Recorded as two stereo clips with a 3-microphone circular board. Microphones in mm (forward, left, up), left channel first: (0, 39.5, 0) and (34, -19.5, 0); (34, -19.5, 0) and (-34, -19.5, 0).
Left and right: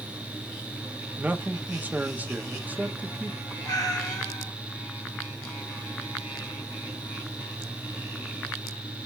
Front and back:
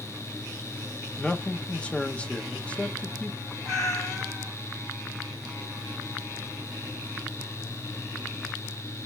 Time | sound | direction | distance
1.2 | a man speaking | 45° right | 0.6 m
3.6 | a cat meowing | 90° left | 2.5 m